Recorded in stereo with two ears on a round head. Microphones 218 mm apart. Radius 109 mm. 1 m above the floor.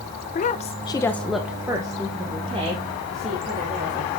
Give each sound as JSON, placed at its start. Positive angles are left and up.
{"t": 0.3, "sound": "a woman speaking", "side_deg": 35, "distance_m": 0.8}